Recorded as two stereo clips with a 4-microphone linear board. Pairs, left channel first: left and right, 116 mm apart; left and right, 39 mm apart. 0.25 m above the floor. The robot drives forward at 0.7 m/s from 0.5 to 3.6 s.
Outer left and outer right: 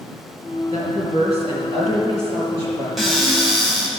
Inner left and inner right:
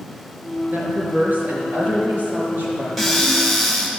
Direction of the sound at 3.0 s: Centre (ahead or behind).